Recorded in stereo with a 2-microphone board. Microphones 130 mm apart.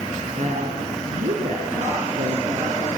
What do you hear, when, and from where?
0.4 s a woman speaking: 65° right (ahead or behind), 4 m; by 2.9 s 70° right (ahead or behind), 6 m